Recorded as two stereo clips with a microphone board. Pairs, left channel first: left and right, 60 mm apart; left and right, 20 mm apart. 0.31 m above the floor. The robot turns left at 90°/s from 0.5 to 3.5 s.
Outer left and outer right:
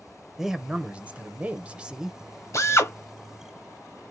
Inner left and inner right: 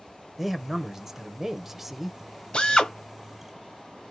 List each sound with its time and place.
0.4 s a man speaking: 5° right (ahead or behind), 0.9 m
2.5 s a drill: 90° left, 1.3 m; by 2.9 s 55° left, 1.3 m